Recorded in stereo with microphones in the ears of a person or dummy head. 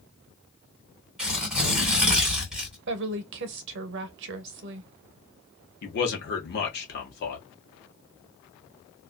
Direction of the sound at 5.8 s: 55° left (ahead or behind).